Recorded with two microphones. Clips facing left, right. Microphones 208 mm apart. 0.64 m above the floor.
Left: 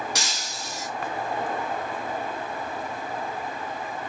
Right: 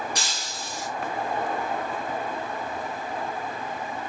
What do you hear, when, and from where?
0.1 s breaking glass: 85° left, 4.5 m